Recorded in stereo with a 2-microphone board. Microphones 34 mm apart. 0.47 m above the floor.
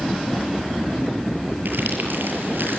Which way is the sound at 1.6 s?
80° right.